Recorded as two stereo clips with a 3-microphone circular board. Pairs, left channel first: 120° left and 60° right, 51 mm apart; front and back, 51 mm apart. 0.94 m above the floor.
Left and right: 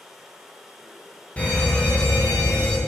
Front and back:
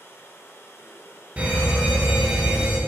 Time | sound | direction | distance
0.0 | running water | 25° left | 1.1 m
1.4 | a fire alarm | 150° left | 1.5 m